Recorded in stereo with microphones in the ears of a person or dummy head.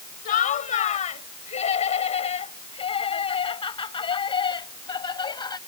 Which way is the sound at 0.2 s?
50° left (ahead or behind).